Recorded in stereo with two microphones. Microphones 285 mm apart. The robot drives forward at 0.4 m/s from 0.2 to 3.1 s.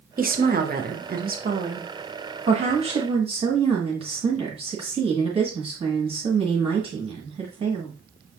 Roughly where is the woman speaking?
Right.